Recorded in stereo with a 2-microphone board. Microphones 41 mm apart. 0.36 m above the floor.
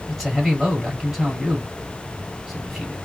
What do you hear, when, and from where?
0.1 s a man speaking: 10° right (ahead or behind), 2 m